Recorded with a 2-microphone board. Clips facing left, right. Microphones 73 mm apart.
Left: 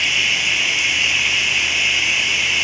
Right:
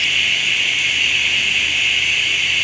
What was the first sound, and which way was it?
Running water, 5° left (ahead or behind).